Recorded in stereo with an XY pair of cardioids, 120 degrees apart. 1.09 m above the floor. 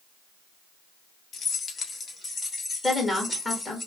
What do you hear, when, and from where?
1.3 s keys jangling: 50° left, 0.7 m; by 3.8 s 20° left, 2 m
2.8 s a woman speaking: 20° left, 1.7 m